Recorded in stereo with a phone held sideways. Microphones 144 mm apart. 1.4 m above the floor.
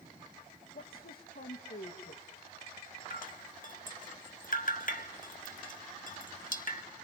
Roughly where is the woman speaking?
Left.